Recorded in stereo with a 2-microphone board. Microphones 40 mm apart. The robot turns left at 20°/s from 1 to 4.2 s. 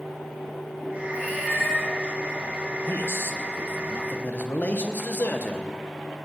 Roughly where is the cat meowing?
Left.